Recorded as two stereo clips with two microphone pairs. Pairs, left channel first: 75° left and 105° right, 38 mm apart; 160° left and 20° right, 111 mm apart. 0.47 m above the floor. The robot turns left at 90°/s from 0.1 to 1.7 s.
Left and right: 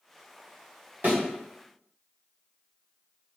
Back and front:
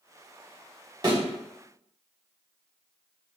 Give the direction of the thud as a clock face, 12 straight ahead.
2 o'clock.